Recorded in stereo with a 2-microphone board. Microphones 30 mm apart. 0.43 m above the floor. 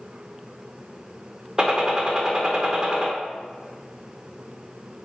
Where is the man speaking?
I don't hear a man speaking.